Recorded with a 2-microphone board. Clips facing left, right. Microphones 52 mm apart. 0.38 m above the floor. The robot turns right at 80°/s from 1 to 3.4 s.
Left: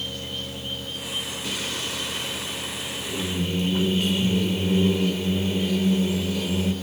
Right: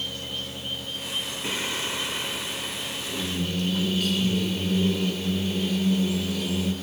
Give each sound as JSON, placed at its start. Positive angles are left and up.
{"t": 1.4, "sound": "singing", "side_deg": -25, "distance_m": 1.5}